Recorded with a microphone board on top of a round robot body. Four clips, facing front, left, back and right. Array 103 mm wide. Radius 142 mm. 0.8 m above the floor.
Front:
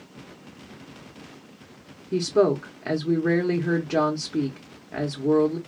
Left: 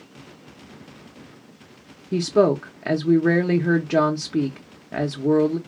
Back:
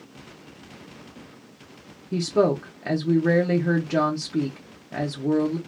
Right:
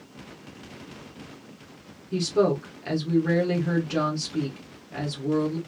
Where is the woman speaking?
90° left, 0.9 m.